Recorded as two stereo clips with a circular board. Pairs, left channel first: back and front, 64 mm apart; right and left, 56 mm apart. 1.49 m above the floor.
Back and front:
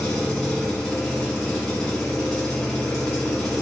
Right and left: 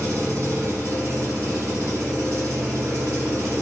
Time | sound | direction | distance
0.0 | an engine running | 95° left | 1.3 m